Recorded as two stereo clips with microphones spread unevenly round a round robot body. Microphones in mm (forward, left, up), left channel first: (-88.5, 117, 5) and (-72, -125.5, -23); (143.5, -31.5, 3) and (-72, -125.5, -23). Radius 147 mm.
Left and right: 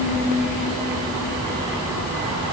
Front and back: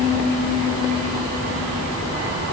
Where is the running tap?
No running tap in this recording.